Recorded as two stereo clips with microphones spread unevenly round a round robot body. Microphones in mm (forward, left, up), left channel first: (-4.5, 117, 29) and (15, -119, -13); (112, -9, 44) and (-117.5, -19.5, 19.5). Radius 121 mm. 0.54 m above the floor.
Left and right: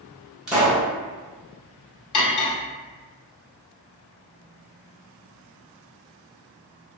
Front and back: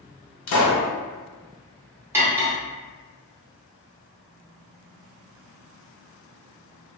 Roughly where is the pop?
Ahead.